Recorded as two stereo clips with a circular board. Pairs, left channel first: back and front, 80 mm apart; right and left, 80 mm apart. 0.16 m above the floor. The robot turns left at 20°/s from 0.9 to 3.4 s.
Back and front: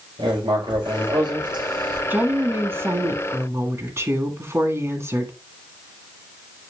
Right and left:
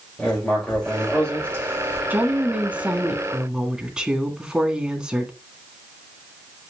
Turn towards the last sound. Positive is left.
turn(degrees=20)